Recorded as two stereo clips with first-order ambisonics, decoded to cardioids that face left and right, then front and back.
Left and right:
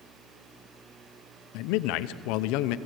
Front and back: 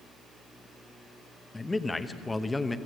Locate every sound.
1.5 s a man speaking: 85° left, 0.7 m